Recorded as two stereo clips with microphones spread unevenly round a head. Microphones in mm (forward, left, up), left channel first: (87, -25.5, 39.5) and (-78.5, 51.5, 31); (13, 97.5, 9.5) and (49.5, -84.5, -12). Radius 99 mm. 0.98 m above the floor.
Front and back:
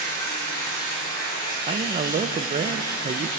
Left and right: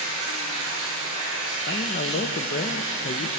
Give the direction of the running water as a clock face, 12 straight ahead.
2 o'clock.